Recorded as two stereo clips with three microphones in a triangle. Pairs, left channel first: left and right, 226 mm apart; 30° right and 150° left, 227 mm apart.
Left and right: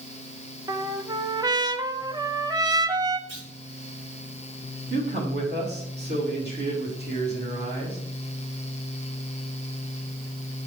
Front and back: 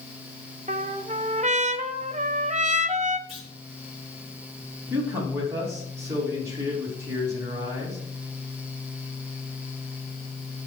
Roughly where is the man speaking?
Behind right.